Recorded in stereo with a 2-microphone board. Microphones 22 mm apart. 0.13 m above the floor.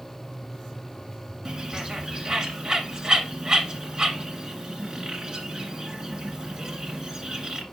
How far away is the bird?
About 1.4 m.